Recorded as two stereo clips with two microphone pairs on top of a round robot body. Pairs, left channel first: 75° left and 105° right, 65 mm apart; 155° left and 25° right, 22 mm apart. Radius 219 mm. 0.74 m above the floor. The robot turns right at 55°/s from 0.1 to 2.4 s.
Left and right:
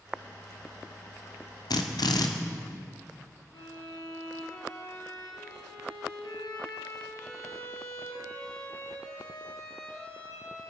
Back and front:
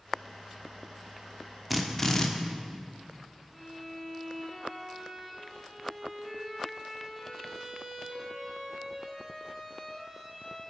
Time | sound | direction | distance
1.7 | a drill | 65° left | 1.2 m
3.5 | a violin | 65° left | 6.5 m